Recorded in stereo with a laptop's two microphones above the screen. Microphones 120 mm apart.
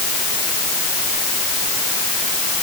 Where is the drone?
I don't hear a drone.